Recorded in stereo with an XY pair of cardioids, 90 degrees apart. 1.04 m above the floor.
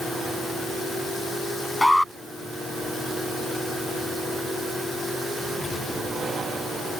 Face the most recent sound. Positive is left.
turn(degrees=5)